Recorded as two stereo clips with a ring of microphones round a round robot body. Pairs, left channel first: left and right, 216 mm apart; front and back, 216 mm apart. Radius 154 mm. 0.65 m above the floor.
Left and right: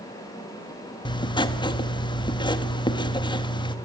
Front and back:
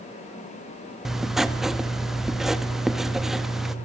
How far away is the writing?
About 1.1 m.